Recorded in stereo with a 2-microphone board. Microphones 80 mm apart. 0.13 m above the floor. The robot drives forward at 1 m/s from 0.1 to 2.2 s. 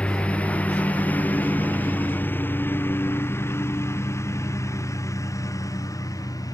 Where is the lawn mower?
15° left (ahead or behind); by 6.5 s 50° left (ahead or behind).